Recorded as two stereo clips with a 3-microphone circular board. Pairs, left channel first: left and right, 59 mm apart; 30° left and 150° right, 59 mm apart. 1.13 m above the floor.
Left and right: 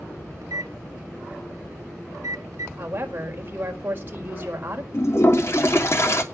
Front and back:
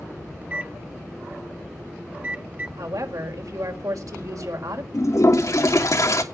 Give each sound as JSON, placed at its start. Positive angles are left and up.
{"t": 0.4, "sound": "a microwave", "azimuth_deg": -85, "distance_m": 1.2}
{"t": 2.8, "sound": "a woman speaking", "azimuth_deg": -145, "distance_m": 4.5}
{"t": 4.9, "sound": "a toilet flushing", "azimuth_deg": 55, "distance_m": 2.5}